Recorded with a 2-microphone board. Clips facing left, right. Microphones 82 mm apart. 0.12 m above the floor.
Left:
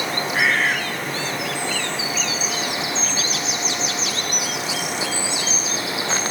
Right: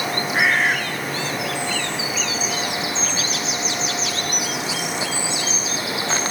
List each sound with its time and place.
0.3 s a bird: 15° right (ahead or behind), 1.3 m